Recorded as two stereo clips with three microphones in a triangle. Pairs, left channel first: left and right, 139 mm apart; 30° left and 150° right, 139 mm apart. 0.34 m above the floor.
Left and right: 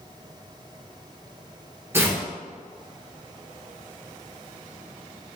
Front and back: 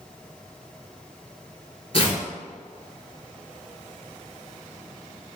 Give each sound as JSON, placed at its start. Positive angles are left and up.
{"t": 1.9, "sound": "tearing paper", "azimuth_deg": -20, "distance_m": 0.9}